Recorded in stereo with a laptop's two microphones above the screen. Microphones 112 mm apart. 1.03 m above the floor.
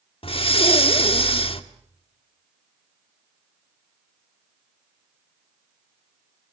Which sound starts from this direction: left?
Breathing, at 0.2 s.